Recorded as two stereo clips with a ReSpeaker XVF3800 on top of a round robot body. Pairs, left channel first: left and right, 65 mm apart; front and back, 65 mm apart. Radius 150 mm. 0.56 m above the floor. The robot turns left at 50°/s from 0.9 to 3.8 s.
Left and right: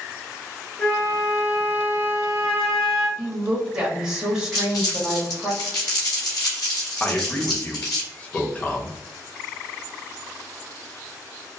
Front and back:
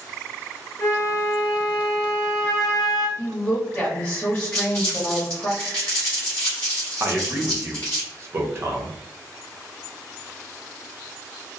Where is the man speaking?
150° left, 0.9 m.